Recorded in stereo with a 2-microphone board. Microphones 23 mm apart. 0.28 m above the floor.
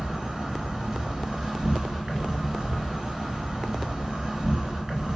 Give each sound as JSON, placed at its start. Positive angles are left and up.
{"t": 0.0, "sound": "an insect", "side_deg": -30, "distance_m": 1.5}